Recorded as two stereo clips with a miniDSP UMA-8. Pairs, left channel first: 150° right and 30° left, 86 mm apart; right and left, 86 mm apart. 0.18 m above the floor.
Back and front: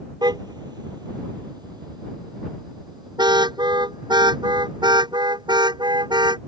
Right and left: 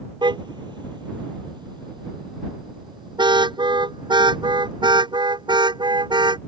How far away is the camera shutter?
I don't hear a camera shutter.